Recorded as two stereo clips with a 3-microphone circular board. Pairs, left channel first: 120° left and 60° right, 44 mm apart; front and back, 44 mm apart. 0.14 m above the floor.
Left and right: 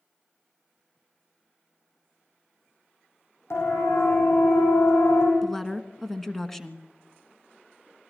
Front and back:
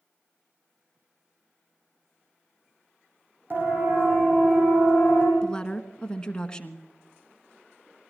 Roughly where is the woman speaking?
Ahead left.